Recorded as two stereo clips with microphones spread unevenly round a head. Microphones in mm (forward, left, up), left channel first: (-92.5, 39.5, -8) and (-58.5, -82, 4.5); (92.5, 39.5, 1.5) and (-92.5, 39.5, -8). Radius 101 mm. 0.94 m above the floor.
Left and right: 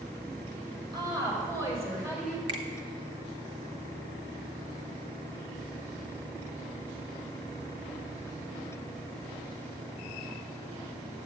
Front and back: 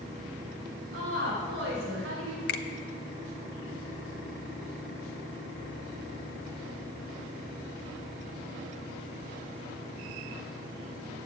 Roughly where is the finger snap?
Ahead.